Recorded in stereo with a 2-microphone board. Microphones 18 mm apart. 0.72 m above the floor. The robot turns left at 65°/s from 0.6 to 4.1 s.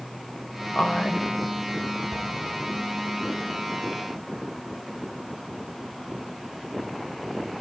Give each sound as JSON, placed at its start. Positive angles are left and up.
{"t": 0.8, "sound": "a woman speaking", "azimuth_deg": 80, "distance_m": 3.0}
{"t": 2.1, "sound": "an explosion", "azimuth_deg": 35, "distance_m": 4.0}